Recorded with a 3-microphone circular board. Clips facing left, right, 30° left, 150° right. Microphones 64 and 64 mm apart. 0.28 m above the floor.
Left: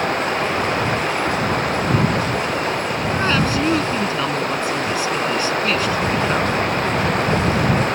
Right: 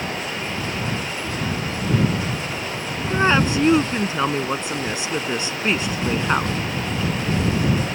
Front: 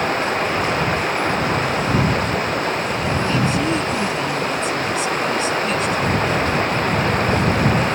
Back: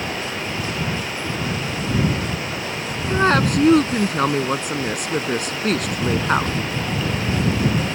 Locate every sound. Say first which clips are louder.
0.0 s running water: left 8 dB, front 7 dB; 65° left
3.1 s a woman speaking: right 3 dB, back 5 dB; 155° right